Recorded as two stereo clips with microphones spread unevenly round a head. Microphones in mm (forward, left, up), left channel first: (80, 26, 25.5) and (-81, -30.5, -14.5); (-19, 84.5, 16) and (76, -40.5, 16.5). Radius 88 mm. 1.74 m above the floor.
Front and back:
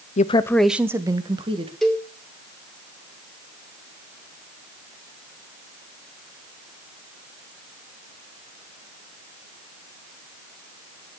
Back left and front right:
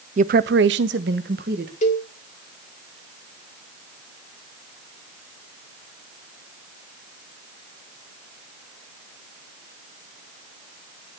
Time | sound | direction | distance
0.2 | a woman speaking | 15° right | 0.7 m
1.8 | a cowbell | 95° left | 1.9 m